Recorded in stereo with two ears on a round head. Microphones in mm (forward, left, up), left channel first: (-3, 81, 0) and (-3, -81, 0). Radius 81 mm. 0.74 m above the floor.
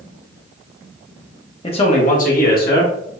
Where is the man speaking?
30° left (ahead or behind), 0.7 m; by 2.9 s 60° left (ahead or behind), 1.3 m.